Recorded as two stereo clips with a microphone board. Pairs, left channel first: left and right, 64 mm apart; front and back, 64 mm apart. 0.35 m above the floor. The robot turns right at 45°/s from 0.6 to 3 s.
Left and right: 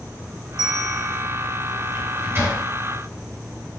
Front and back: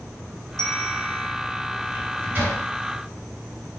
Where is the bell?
75° left, 0.7 m; by 1.4 s 110° left, 0.7 m.